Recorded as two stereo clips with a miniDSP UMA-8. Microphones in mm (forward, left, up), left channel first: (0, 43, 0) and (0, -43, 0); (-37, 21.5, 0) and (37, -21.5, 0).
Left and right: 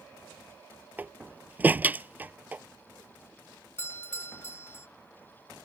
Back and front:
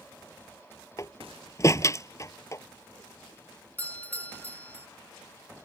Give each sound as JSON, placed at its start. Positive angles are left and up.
{"t": 1.0, "sound": "a door slam", "azimuth_deg": -160}
{"t": 3.8, "sound": "a doorbell", "azimuth_deg": 100}